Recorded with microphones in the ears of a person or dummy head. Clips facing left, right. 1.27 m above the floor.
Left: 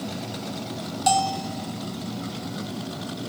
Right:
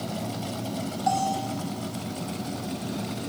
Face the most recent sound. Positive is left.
turn(degrees=40)  # may be behind; listen again after turning